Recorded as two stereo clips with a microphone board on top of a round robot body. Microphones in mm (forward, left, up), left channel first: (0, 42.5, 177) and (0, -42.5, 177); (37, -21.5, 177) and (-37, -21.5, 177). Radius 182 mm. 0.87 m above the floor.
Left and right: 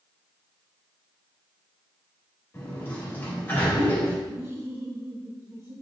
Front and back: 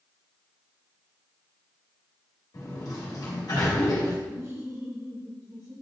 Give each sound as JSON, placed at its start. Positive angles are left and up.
{"t": 2.5, "sound": "a sliding door", "azimuth_deg": 25, "distance_m": 2.5}
{"t": 4.3, "sound": "laughter", "azimuth_deg": -145, "distance_m": 3.5}